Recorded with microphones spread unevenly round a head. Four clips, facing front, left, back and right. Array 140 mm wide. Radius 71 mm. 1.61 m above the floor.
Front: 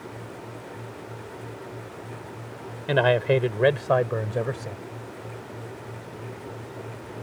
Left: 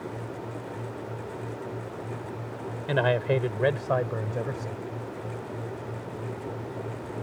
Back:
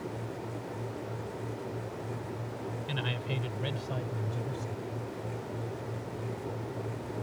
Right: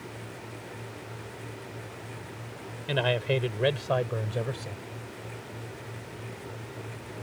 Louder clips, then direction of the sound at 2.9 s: Left 3 dB, front 20 dB; 15° left.